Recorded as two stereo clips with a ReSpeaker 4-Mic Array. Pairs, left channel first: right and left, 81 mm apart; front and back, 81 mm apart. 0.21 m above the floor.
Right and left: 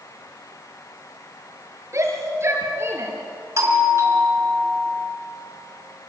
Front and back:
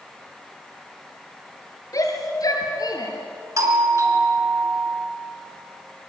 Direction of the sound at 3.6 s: 135° left.